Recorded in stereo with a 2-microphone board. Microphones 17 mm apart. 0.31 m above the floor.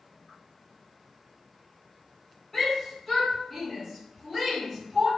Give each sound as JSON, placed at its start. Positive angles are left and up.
{"t": 2.5, "sound": "a shout", "side_deg": 15, "distance_m": 1.8}